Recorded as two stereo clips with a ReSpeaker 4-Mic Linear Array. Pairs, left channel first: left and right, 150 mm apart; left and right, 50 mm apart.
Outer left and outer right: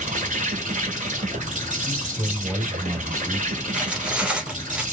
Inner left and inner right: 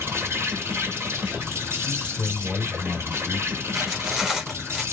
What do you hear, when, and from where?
0.0 s an insect: 55° right (ahead or behind), 1.4 m
1.8 s a man speaking: 25° right (ahead or behind), 2.5 m
3.7 s cutlery clinking: 5° right (ahead or behind), 1.2 m